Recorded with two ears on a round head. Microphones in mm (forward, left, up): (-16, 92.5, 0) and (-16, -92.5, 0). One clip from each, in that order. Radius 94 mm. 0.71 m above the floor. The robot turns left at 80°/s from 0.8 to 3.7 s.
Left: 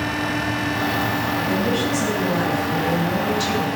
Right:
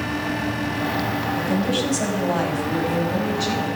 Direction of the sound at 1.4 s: 55° right.